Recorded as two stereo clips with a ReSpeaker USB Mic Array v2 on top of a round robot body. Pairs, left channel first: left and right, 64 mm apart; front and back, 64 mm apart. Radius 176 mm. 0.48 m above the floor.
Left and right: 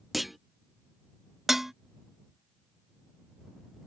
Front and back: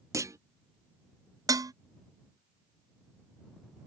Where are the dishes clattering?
175° right.